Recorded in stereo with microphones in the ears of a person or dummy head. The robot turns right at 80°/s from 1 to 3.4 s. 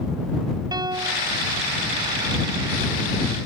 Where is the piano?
20° right (ahead or behind); by 1.3 s 50° right (ahead or behind).